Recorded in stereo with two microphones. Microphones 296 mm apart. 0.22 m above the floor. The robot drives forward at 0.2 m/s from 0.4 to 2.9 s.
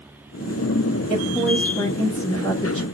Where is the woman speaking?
25° left (ahead or behind), 1.1 m; by 2.9 s 20° left (ahead or behind), 1.4 m.